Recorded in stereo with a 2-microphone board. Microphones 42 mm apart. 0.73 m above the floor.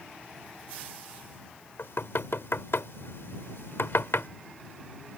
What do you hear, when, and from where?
1.8 s knocking: 85° left